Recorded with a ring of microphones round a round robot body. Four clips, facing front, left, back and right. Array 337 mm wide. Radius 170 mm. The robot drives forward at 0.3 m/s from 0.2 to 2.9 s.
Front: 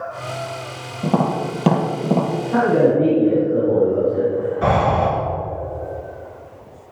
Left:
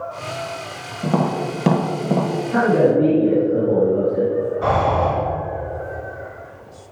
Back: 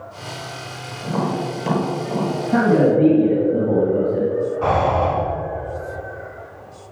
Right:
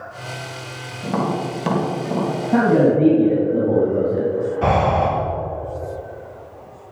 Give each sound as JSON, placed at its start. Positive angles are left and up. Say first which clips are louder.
{"t": 1.0, "sound": "tapping", "louder": "left 2 dB, front 3 dB", "azimuth_deg": 30, "distance_m": 2.0}
{"t": 2.5, "sound": "a man speaking", "louder": "right 1 dB, even", "azimuth_deg": -130, "distance_m": 3.0}
{"t": 4.6, "sound": "breathing", "louder": "right 2 dB, front 1 dB", "azimuth_deg": -55, "distance_m": 4.0}